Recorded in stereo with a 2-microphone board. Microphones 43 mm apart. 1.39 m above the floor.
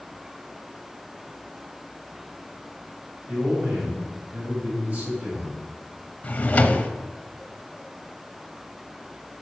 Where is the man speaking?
35° right (ahead or behind), 5 m.